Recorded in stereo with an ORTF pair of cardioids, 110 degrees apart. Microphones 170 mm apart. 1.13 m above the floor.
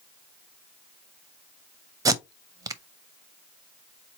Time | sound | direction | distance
2.0 | tape being pulled | 20° right | 0.5 m